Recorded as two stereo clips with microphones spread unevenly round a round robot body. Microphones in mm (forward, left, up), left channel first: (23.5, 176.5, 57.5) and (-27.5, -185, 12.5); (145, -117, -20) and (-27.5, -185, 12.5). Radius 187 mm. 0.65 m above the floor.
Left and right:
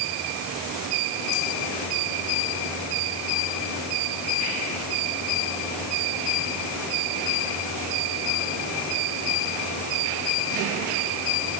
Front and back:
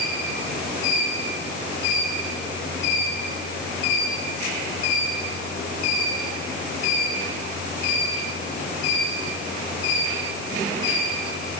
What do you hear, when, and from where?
Only background noise.